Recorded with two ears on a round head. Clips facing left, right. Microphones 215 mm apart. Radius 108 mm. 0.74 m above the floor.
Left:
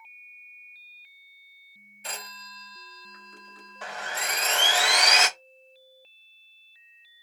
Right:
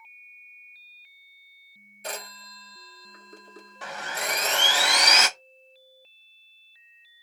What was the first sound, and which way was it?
A phone ringing, 35° right (ahead or behind).